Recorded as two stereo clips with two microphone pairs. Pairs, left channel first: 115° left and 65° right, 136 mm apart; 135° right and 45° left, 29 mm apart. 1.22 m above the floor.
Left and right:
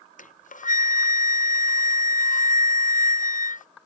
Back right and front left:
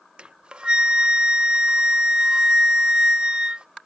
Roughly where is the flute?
Left.